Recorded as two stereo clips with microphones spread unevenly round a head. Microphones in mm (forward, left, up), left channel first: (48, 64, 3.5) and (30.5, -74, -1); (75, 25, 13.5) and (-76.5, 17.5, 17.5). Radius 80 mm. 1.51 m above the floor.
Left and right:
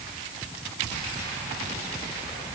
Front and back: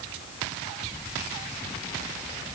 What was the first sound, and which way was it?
Only background noise.